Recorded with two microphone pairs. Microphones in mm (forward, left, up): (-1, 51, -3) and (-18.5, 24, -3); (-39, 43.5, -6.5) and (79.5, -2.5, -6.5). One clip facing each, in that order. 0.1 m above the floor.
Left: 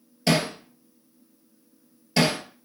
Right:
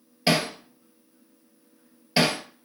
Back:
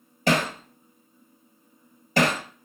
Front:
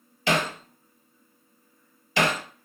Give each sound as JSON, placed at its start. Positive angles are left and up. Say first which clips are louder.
{"t": 0.3, "sound": "hammering", "louder": "even, back 2 dB", "azimuth_deg": 175, "distance_m": 0.6}